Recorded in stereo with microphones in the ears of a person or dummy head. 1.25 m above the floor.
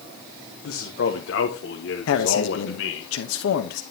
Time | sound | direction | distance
0.6 | a man speaking | 65° left (ahead or behind) | 1.2 m
2.1 | a man speaking | 80° left | 1.0 m